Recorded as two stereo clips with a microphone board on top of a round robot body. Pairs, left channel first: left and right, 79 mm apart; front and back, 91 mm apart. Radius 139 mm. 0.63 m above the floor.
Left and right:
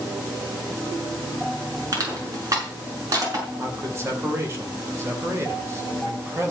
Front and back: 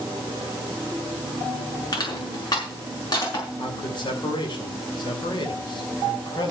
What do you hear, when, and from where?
1.9 s crushing: 45° right, 6 m
3.6 s a man speaking: 35° right, 3.5 m